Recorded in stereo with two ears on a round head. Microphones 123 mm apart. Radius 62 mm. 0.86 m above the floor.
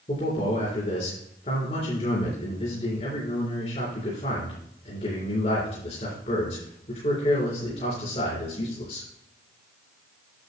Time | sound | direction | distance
0.1 | a man speaking | 45° left (ahead or behind) | 3.5 m